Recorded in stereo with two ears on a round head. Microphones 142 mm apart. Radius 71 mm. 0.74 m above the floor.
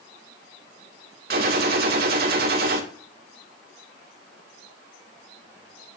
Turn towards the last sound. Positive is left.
turn(degrees=-60)  # may be behind; listen again after turning